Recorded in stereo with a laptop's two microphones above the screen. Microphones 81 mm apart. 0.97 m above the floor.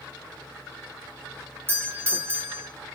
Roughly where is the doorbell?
Right.